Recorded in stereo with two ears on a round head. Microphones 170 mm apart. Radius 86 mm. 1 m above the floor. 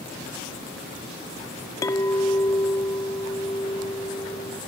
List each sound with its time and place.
1.8 s a clink: 20° left (ahead or behind)